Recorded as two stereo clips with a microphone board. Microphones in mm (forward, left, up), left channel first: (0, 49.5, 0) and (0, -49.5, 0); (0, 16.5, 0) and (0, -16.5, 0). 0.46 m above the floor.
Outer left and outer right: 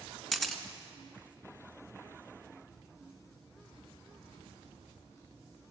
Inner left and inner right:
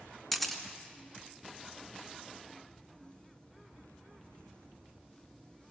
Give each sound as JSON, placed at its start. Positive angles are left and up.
{"t": 0.3, "sound": "a camera shutter", "side_deg": 5, "distance_m": 2.0}